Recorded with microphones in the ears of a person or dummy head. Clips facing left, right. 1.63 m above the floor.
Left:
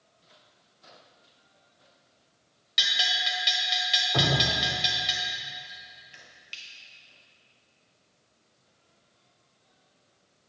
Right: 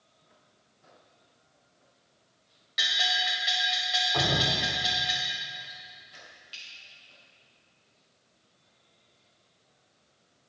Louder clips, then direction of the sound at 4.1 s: Left 2 dB; 30° left (ahead or behind).